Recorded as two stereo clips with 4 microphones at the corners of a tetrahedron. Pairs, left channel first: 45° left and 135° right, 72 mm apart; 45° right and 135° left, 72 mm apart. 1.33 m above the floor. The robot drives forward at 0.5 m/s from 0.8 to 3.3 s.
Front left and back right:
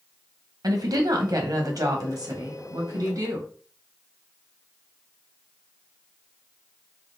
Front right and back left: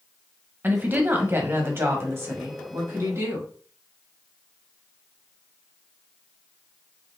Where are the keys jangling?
No keys jangling in this recording.